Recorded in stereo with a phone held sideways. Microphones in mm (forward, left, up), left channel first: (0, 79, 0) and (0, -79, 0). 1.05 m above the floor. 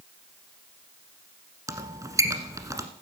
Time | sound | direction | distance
1.7 | a squeak | 20° right (ahead or behind) | 1.3 m